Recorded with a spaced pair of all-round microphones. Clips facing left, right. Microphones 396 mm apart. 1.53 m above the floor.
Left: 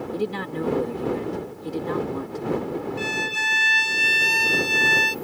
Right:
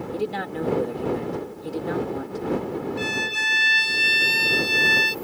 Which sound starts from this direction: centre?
A man speaking, at 0.1 s.